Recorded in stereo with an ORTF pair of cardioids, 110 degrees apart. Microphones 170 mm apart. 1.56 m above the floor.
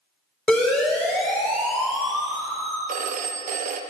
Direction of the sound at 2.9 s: 55° right.